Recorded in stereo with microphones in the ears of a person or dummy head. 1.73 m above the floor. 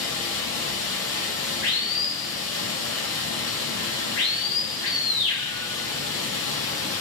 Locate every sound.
0.0 s running water: 25° left (ahead or behind), 1.6 m